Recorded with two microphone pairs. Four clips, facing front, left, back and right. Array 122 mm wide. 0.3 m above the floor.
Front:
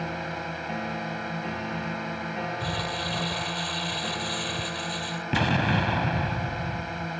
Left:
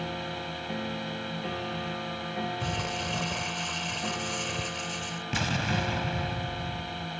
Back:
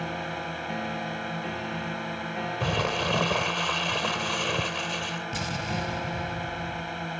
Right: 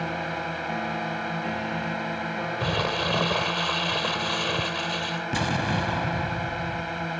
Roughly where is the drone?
Right.